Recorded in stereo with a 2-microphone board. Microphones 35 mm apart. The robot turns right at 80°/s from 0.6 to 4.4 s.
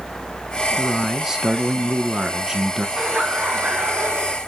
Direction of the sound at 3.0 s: 160° right.